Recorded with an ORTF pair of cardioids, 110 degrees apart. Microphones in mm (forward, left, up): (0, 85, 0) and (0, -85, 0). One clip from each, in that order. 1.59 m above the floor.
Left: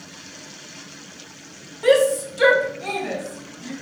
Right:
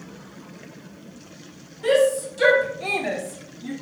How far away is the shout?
About 0.9 m.